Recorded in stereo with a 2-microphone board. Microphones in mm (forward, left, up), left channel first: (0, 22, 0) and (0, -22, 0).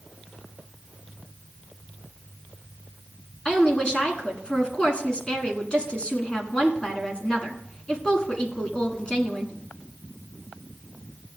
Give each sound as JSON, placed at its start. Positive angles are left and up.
{"t": 3.5, "sound": "a woman speaking", "side_deg": 25, "distance_m": 1.6}